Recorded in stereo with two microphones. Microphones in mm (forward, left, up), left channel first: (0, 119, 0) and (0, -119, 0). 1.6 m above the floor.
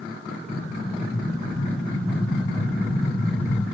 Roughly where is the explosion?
Left.